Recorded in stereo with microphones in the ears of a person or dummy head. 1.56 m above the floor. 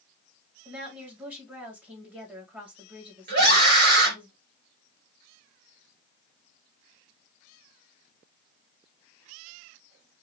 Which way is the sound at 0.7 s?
10° right (ahead or behind).